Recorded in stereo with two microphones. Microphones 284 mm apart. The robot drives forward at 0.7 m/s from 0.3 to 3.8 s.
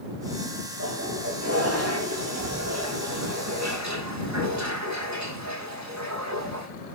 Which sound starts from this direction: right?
A toilet flushing, at 0.8 s.